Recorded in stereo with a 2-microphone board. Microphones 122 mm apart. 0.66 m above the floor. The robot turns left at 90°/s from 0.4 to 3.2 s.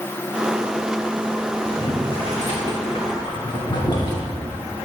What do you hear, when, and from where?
1.6 s boiling: centre (ahead or behind), 1.2 m; by 4.2 s 35° left (ahead or behind), 1.2 m